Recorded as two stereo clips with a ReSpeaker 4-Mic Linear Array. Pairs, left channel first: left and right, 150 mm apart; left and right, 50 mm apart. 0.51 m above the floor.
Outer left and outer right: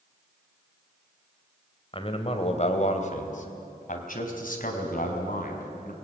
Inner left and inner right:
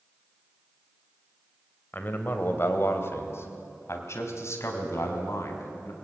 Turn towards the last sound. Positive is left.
turn(degrees=75)  # may be behind; listen again after turning